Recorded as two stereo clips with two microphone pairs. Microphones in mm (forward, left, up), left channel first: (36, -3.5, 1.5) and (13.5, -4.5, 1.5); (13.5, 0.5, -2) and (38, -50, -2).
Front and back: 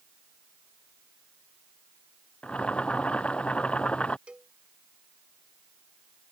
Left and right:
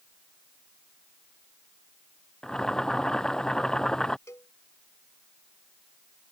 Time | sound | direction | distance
2.4 | boiling | 35° left | ?
4.3 | a cowbell | 145° left | ?